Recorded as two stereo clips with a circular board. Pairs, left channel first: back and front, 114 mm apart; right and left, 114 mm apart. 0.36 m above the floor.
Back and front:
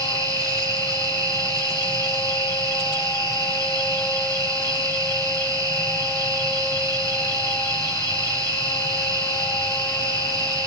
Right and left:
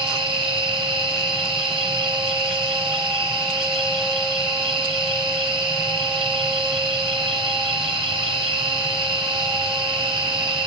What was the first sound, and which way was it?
An insect, 55° left.